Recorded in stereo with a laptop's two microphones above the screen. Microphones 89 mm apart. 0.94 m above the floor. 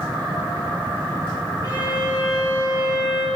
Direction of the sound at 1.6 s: 45° left (ahead or behind).